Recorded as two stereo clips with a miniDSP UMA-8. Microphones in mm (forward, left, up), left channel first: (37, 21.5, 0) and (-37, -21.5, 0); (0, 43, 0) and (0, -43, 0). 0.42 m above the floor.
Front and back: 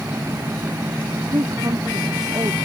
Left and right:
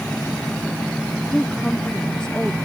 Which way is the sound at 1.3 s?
170° left.